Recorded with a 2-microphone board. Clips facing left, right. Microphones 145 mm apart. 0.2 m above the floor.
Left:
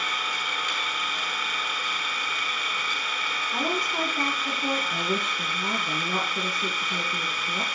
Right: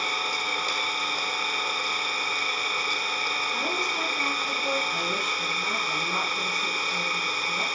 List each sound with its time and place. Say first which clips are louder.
0.0 s an engine running: right 2 dB; 35° right (ahead or behind), 1.5 m
3.5 s a woman speaking: left 5 dB; 40° left (ahead or behind), 2 m
4.9 s a woman speaking: left 2 dB; 50° left (ahead or behind), 1.9 m